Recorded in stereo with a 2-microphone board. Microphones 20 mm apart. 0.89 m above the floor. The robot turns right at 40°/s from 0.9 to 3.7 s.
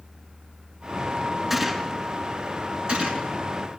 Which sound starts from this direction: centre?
A gunshot, at 1.5 s.